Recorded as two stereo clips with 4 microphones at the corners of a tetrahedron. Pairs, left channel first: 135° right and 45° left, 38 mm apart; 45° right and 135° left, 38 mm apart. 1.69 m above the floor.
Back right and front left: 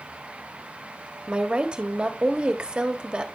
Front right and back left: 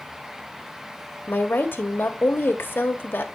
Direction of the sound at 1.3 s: 20° right.